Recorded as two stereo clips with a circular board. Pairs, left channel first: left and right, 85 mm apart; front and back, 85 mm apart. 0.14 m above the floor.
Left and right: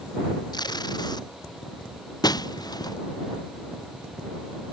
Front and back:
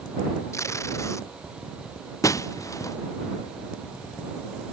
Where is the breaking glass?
55° left.